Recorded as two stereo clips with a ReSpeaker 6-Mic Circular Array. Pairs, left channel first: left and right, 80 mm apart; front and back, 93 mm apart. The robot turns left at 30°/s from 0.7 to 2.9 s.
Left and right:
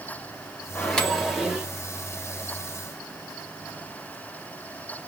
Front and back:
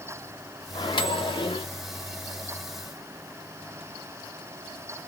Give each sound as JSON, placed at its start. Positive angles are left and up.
{"t": 0.8, "sound": "a microwave", "azimuth_deg": 15, "distance_m": 0.8}